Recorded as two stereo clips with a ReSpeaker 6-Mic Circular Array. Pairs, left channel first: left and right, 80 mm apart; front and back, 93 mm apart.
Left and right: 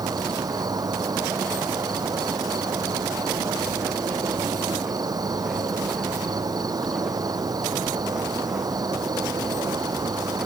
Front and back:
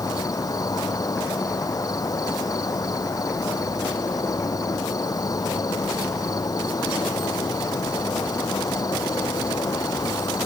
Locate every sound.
0.0 s an insect: 50° right